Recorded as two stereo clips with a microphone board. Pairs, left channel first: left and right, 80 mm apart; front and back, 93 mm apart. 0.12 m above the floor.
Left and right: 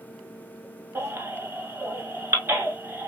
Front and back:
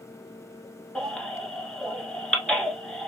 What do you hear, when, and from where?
0.9 s a baby crying: 70° right, 1.0 m